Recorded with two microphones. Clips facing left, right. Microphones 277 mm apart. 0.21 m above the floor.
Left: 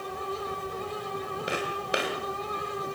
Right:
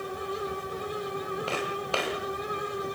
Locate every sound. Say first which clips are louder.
1.5 s footsteps: even; 15° left (ahead or behind), 8 m